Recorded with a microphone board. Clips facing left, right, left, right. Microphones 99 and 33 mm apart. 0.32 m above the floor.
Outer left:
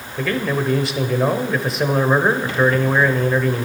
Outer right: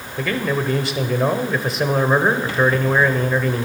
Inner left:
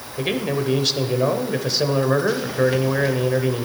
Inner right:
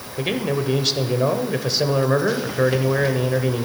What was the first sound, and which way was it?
A man speaking, centre (ahead or behind).